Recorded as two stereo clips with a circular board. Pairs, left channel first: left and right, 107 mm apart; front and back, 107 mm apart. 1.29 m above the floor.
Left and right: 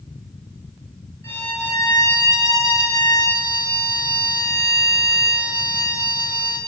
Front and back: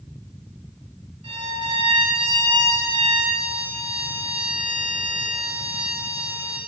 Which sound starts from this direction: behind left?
A violin, at 1.2 s.